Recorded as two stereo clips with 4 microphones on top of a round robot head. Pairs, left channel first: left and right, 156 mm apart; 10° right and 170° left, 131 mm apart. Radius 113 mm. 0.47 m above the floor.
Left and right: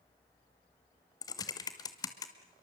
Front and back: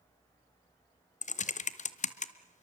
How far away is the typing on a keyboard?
About 1.0 m.